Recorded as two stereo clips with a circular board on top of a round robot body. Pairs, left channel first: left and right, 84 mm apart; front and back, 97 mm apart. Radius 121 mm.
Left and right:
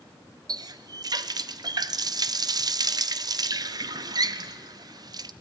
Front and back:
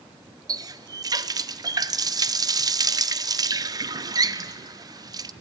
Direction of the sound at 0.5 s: 130° right.